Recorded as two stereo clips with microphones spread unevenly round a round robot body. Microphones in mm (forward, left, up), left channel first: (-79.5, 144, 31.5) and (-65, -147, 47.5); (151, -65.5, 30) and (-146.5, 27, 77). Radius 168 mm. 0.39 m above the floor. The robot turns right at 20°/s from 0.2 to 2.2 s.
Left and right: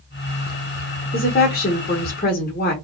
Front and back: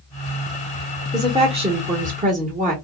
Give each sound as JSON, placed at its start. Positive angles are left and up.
{"t": 1.1, "sound": "a woman speaking", "azimuth_deg": 80, "distance_m": 0.9}